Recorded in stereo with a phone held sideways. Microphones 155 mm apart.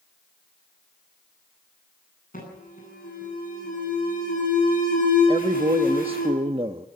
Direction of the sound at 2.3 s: 60° left (ahead or behind).